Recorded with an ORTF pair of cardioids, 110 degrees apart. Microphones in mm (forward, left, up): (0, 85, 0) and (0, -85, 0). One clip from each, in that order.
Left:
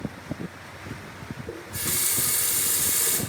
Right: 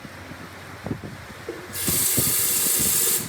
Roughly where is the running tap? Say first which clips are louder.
Right 3 dB; ahead right.